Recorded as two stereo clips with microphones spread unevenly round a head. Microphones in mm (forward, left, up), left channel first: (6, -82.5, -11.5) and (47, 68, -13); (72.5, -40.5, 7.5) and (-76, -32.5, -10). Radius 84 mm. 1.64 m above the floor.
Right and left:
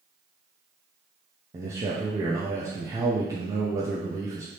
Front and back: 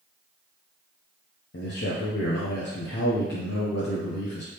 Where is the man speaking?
5° left, 0.7 m.